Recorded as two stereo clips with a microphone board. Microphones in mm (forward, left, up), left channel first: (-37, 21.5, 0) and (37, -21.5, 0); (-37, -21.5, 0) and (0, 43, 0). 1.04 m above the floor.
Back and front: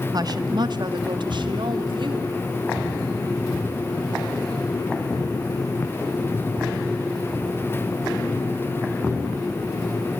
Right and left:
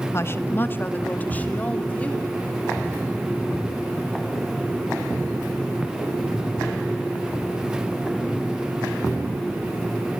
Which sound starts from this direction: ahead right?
A woman speaking, at 0.1 s.